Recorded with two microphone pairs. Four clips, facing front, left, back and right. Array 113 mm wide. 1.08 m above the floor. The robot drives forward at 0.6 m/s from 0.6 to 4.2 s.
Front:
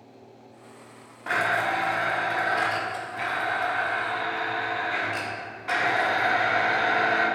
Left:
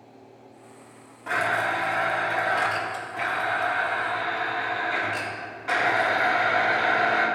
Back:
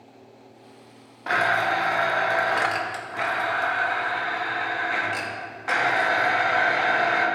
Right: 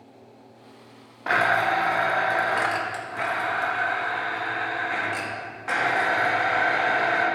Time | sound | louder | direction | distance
1.3 | a blender | right 4 dB, back 3 dB | 105° right | 0.8 m